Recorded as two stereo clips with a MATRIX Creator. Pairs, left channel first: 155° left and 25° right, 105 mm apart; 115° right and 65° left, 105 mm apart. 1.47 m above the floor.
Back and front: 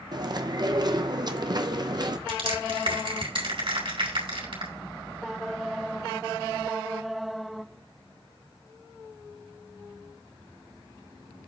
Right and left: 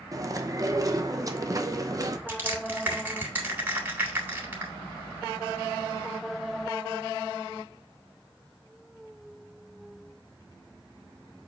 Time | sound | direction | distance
0.1 | chewing | 15° left | 0.9 m
2.3 | crushing | straight ahead | 3.5 m